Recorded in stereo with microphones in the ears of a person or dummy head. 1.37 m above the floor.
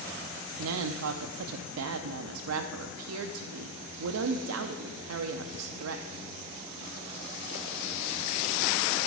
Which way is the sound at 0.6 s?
80° right.